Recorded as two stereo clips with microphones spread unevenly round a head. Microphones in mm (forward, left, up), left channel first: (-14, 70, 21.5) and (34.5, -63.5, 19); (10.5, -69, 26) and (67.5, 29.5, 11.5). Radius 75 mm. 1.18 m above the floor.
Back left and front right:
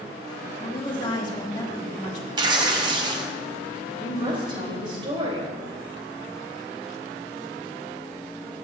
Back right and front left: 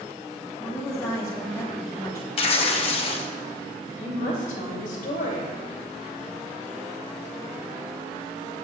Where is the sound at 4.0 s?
125° right, 3 m.